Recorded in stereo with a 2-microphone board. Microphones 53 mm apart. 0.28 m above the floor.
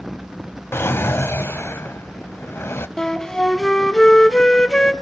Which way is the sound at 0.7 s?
50° left (ahead or behind).